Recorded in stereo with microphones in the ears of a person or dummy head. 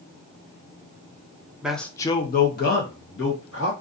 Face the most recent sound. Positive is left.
turn(degrees=60)  # may be behind; listen again after turning